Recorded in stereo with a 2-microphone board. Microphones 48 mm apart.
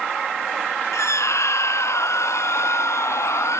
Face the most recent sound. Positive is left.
turn(degrees=75)  # may be behind; listen again after turning